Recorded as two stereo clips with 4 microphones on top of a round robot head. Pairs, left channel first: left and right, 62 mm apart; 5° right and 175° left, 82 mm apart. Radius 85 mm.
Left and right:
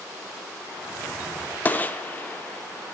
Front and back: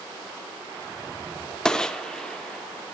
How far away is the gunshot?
About 0.8 m.